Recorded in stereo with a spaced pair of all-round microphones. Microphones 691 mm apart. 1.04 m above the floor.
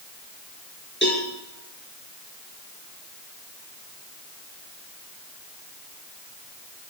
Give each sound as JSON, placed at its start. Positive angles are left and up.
{"t": 1.0, "sound": "a cowbell", "side_deg": 15, "distance_m": 5.0}